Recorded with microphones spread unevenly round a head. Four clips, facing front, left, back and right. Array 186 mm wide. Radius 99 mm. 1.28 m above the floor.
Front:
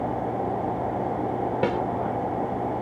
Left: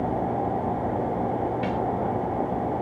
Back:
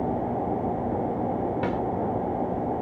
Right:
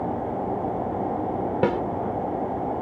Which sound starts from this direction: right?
A snare drum, at 1.6 s.